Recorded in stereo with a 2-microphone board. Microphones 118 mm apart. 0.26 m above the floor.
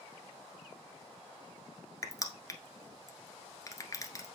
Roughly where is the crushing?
Left.